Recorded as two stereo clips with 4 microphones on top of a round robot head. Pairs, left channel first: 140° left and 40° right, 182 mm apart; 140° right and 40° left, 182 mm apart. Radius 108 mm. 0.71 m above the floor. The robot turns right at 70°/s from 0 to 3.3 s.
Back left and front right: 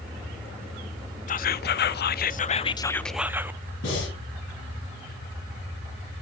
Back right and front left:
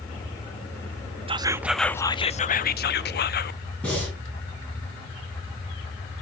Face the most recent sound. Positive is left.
turn(degrees=140)